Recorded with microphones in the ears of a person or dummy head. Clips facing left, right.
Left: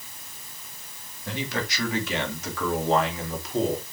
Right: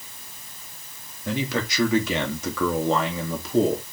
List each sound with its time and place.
1.2 s a man speaking: 75° right (ahead or behind), 3.5 m; by 3.8 s 70° right (ahead or behind), 3 m